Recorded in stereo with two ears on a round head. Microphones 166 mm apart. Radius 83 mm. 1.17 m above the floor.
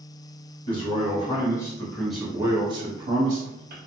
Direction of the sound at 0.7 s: 30° left (ahead or behind).